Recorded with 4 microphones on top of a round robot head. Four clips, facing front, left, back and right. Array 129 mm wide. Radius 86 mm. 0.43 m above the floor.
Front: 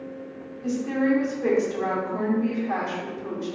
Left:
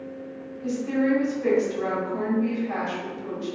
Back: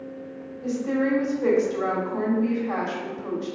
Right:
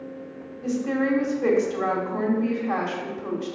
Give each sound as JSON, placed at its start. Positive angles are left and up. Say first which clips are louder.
{"t": 0.6, "sound": "a woman speaking", "louder": "even, even", "azimuth_deg": -90, "distance_m": 1.4}